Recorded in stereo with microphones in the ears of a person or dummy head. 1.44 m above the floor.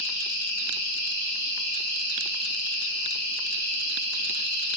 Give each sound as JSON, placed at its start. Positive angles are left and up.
{"t": 0.0, "sound": "an insect", "side_deg": 75, "distance_m": 2.5}